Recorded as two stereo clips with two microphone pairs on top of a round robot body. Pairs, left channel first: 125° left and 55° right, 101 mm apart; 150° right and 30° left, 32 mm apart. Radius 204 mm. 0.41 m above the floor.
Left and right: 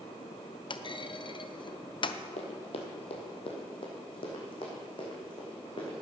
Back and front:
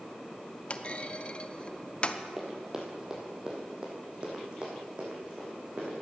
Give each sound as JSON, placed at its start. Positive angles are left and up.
{"t": 0.7, "sound": "a clunk", "azimuth_deg": 155, "distance_m": 0.7}
{"t": 2.4, "sound": "running footsteps", "azimuth_deg": 105, "distance_m": 1.0}